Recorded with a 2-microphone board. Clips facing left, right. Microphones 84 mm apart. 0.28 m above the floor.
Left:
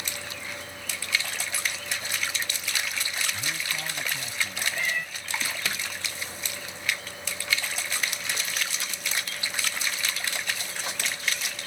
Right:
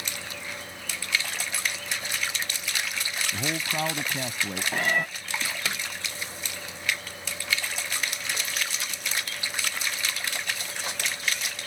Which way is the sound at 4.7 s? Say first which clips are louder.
Right 6 dB; 60° right (ahead or behind).